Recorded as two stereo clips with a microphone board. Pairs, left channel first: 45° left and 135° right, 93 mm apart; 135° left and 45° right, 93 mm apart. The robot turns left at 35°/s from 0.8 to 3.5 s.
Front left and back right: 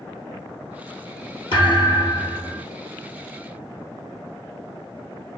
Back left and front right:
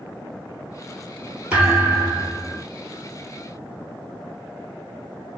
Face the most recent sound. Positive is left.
turn(degrees=-45)